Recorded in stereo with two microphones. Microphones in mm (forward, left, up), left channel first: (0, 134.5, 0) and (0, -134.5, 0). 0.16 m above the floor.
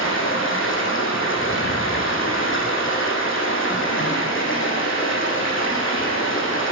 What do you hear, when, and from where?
0.0 s running water: 50° left (ahead or behind), 1.9 m